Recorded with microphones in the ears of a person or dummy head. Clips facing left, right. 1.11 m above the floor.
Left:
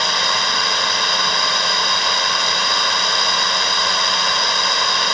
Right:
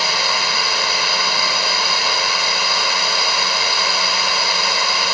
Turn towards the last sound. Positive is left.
turn(degrees=0)  # may be behind; listen again after turning